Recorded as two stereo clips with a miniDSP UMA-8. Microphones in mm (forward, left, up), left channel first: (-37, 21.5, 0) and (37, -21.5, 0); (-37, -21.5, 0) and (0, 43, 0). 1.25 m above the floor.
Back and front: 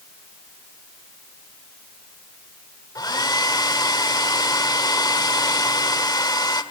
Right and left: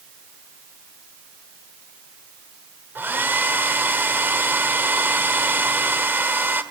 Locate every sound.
3.0 s a hair dryer: 120° left, 1.7 m